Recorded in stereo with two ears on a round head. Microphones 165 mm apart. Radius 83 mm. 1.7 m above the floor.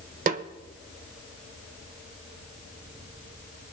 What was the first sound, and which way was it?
A snare drum, 45° right (ahead or behind).